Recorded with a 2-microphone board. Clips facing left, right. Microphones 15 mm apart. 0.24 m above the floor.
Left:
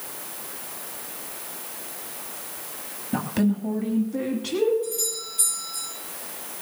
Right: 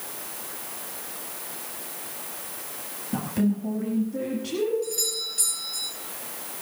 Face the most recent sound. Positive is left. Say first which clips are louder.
# right 1 dB
turn(degrees=-55)  # may be behind; listen again after turning